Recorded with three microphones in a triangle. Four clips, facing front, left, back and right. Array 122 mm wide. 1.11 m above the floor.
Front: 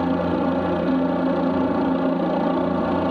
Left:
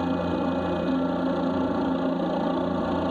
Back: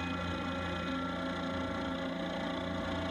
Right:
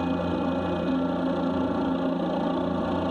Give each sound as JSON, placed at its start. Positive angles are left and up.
{"t": 0.0, "sound": "a helicopter", "azimuth_deg": 5}